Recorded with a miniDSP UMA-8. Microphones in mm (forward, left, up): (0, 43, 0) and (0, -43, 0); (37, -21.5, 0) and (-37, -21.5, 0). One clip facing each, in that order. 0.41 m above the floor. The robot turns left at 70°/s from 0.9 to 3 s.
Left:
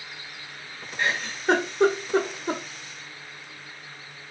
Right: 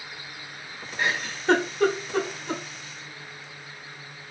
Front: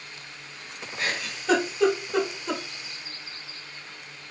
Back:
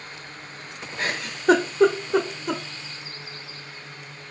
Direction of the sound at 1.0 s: 155° right.